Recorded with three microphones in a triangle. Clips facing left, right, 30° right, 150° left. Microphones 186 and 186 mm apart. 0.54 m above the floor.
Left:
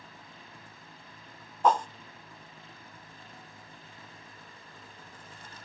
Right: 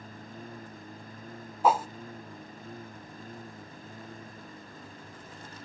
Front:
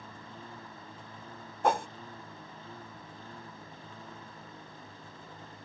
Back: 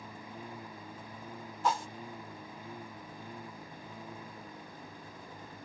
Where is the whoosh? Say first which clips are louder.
Even, front 4 dB; 5° right.